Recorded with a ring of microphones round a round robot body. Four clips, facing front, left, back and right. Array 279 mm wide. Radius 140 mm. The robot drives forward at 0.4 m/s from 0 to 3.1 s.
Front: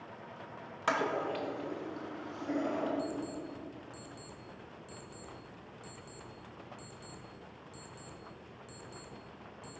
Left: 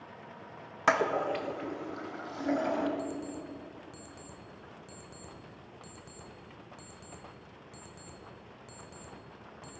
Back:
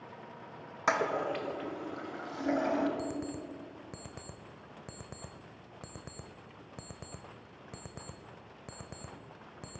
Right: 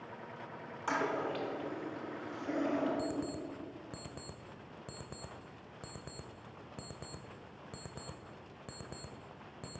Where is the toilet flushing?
100° left, 0.8 m; by 2.9 s 140° left, 1.2 m.